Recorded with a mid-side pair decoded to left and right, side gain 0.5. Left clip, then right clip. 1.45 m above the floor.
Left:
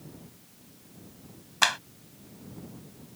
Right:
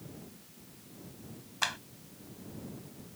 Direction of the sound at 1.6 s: 50° left.